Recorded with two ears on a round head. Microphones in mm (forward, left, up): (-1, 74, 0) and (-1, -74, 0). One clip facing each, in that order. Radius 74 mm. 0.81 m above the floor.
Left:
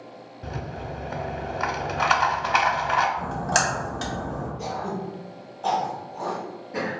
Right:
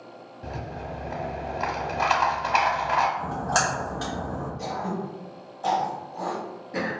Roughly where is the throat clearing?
Right.